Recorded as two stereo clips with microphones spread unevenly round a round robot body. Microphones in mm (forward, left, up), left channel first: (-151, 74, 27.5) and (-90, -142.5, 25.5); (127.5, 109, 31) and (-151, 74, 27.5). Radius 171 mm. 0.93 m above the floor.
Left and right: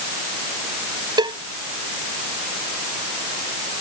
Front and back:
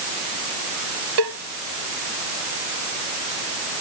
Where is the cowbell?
145° right.